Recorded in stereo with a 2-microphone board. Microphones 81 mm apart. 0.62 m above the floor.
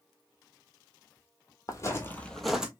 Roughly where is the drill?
I don't hear a drill.